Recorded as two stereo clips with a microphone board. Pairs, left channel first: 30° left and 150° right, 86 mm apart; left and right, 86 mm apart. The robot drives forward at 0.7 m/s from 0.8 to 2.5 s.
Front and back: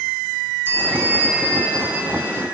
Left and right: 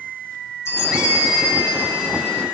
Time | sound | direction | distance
0.7 | a bell | 145° left | 4 m